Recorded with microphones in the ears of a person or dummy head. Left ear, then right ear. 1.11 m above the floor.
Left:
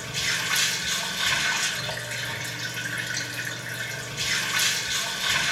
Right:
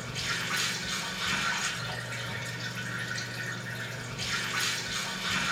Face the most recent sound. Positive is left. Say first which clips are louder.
# left 6 dB
turn(degrees=75)  # may be behind; listen again after turning